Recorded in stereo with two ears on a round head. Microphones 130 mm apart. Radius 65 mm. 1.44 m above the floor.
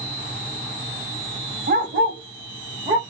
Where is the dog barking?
60° right (ahead or behind), 2 m; by 3.0 s 30° right (ahead or behind), 1.3 m.